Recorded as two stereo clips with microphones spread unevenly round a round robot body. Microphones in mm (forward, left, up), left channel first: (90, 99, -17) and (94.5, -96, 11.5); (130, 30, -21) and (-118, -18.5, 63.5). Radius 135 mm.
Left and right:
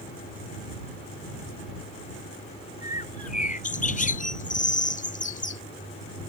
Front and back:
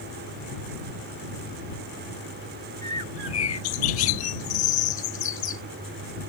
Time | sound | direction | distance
2.8 | a bird | 40° left | ?